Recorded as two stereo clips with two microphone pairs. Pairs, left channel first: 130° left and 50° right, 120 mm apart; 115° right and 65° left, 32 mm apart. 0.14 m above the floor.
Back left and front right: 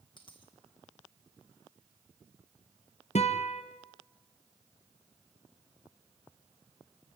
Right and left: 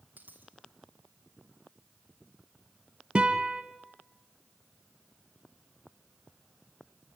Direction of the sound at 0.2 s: 80° left.